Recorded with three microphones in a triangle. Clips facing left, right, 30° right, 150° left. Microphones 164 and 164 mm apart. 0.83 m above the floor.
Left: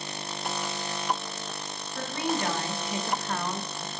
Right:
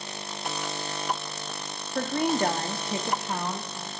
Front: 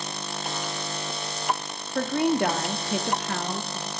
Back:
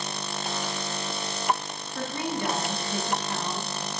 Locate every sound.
1.9 s a woman speaking: 60° right, 1.3 m; by 3.9 s straight ahead, 1.6 m